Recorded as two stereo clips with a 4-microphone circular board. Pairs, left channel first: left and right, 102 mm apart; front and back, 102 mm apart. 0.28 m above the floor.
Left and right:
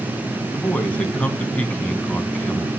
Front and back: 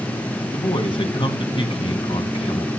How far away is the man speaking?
About 2.0 m.